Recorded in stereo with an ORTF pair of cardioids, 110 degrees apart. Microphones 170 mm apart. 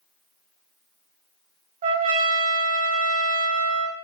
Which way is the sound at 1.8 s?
55° right.